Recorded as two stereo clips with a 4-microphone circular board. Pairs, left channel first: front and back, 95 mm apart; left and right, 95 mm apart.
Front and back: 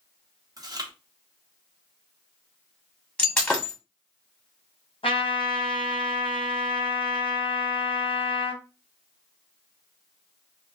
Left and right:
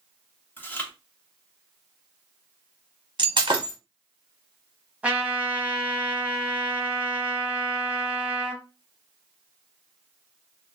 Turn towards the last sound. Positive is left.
turn(degrees=-15)